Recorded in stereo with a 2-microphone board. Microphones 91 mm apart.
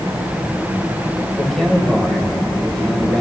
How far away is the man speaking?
About 1.6 m.